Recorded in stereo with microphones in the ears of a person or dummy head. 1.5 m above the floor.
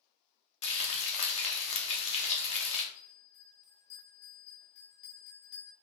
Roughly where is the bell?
Left.